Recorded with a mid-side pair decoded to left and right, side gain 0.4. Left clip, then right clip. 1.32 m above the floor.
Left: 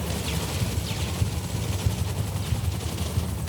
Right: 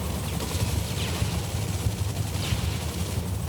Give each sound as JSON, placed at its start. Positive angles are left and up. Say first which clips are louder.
{"t": 0.3, "sound": "running footsteps", "louder": "even", "azimuth_deg": 15, "distance_m": 7.5}